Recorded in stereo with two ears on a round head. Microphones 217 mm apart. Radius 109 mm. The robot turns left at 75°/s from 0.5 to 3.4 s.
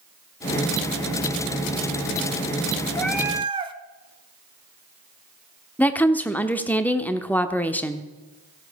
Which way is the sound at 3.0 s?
10° left.